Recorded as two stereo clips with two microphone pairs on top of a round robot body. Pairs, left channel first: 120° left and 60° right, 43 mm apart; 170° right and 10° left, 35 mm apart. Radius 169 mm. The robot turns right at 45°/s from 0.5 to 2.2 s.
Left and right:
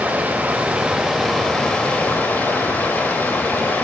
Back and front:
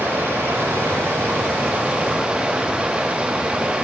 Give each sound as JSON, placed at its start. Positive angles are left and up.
{"t": 0.0, "sound": "running water", "azimuth_deg": -5, "distance_m": 0.9}